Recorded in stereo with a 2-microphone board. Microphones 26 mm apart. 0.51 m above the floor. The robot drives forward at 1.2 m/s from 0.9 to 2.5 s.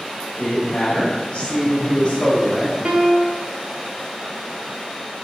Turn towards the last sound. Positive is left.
turn(degrees=-60)  # may be behind; listen again after turning